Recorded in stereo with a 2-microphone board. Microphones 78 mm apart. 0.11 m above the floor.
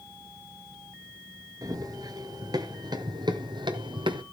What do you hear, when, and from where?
1.6 s running footsteps: 50° right (ahead or behind), 2.5 m; by 4.2 s 85° right, 1.5 m